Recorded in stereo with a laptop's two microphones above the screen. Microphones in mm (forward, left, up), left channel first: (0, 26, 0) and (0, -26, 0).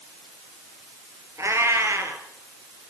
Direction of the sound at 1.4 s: 65° right (ahead or behind).